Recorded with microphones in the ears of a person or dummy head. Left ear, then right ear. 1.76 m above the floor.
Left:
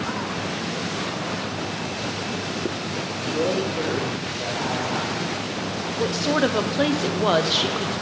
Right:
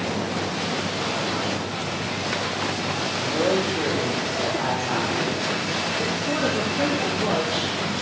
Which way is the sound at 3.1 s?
85° right.